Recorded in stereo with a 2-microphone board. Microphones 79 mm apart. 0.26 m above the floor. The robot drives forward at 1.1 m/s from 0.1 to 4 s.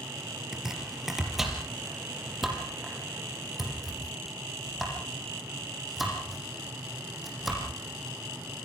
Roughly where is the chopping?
Centre.